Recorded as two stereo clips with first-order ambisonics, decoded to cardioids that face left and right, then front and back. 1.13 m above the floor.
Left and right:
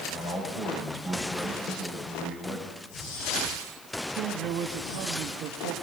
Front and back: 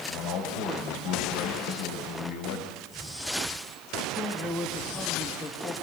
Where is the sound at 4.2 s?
75° right, 2 m.